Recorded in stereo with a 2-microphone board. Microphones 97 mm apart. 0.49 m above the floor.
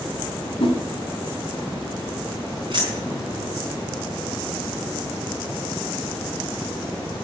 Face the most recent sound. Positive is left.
turn(degrees=-50)  # may be behind; listen again after turning